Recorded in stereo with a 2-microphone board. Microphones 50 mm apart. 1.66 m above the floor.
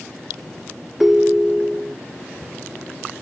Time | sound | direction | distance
1.0 | a ringtone | 5° right (ahead or behind) | ?